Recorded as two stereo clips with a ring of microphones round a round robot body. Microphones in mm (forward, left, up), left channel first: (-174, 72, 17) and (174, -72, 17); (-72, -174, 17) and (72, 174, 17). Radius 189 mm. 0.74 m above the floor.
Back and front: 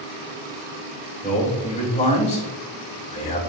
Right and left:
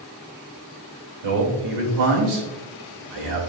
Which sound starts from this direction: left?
A man speaking, at 1.2 s.